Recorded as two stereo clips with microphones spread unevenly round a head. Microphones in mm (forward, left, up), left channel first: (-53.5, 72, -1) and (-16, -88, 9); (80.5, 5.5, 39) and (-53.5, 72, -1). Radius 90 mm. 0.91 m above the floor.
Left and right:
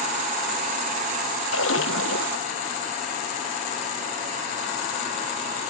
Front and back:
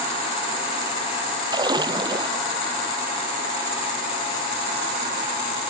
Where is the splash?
90° left.